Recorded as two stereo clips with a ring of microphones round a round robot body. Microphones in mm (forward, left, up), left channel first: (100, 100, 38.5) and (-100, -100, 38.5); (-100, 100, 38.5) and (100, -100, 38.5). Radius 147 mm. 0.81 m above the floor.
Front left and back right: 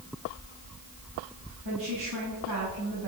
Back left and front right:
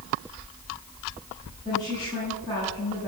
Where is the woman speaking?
150° right, 9.5 m.